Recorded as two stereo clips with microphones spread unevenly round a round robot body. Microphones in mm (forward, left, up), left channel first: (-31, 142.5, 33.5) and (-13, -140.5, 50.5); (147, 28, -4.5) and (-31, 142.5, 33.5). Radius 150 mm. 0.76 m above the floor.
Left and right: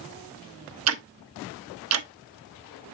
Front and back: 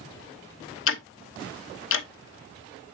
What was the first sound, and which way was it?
Ticking, 45° right.